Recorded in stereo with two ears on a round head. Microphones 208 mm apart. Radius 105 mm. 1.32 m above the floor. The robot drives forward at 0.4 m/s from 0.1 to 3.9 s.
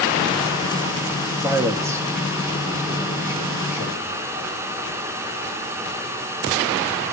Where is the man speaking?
15° right (ahead or behind), 2 m; by 4.2 s 10° right (ahead or behind), 3 m.